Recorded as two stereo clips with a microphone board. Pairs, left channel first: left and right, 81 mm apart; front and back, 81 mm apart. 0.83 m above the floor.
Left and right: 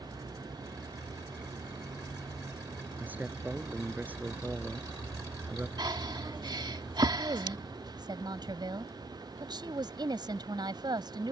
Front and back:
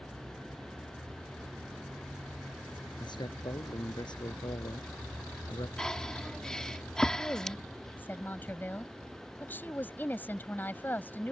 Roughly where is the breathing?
Right.